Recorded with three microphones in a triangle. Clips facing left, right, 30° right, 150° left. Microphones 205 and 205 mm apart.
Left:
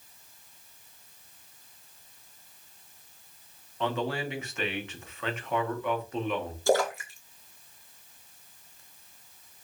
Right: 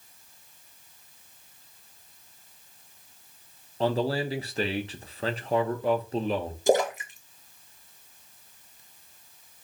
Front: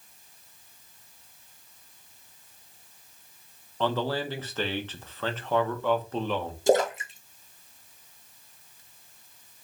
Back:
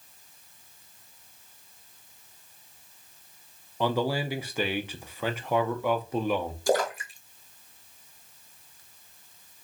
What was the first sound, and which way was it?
A man speaking, 135° right.